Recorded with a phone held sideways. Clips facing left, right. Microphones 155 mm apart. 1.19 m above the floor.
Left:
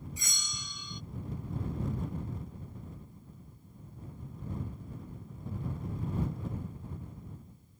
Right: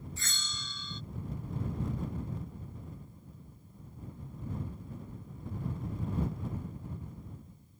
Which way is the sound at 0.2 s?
15° left (ahead or behind).